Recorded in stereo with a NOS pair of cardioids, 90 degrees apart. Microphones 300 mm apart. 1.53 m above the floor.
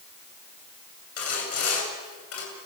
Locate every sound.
1.2 s sawing: 50° left, 9 m